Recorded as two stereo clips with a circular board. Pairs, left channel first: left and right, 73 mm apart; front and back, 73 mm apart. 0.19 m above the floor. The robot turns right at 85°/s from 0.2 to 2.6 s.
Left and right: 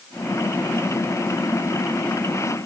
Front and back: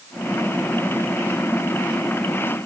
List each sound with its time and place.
Only background noise.